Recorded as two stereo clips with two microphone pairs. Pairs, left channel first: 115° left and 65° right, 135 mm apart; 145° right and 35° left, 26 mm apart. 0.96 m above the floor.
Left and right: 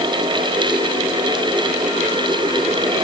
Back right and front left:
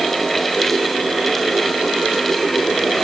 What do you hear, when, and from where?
Only background noise.